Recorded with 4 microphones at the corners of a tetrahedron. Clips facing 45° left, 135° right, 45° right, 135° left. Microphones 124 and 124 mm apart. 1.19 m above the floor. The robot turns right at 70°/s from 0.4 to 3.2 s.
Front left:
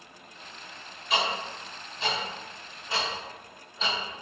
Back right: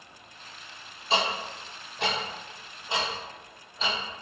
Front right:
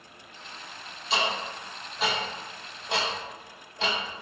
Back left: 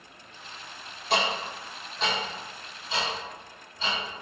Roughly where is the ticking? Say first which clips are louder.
Back right 1 dB, back left 2 dB; behind.